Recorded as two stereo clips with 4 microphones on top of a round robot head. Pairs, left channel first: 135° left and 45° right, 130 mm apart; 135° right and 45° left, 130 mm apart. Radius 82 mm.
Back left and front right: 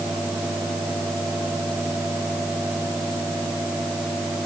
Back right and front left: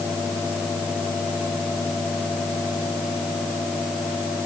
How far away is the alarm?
No alarm in this recording.